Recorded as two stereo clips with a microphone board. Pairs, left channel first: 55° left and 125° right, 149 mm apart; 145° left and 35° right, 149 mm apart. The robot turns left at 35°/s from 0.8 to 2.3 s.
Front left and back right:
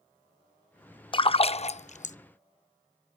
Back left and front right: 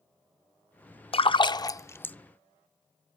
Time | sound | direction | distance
1.1 | a splash | 105° left | 0.5 m